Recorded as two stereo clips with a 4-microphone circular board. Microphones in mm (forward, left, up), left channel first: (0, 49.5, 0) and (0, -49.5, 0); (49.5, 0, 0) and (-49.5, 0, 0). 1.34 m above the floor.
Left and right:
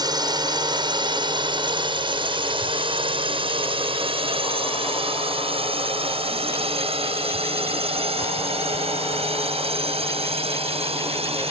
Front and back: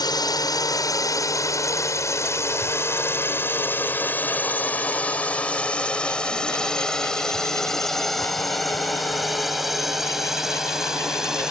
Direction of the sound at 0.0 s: 45° right.